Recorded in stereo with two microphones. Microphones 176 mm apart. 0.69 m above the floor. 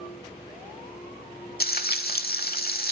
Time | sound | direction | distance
1.6 | frying | 60° left (ahead or behind) | 0.9 m